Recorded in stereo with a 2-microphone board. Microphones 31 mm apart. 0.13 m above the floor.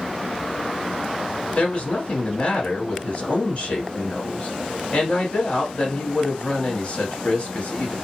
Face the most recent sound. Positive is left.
turn(degrees=40)  # may be behind; listen again after turning